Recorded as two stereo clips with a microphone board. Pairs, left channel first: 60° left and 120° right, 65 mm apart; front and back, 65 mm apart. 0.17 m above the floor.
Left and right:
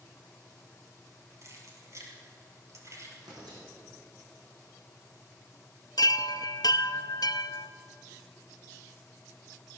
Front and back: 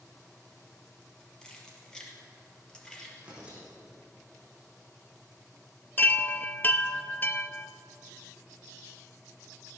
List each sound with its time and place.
1.4 s keys jangling: 80° right, 2.5 m
3.2 s tearing paper: 105° right, 4.5 m
6.0 s a chime: 60° left, 0.5 m